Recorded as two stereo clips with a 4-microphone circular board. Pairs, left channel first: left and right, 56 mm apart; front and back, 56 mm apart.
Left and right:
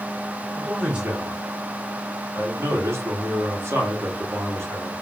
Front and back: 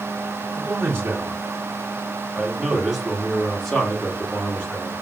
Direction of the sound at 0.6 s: 150° right.